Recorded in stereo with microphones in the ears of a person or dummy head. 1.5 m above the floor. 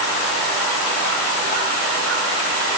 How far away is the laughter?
I don't hear laughter.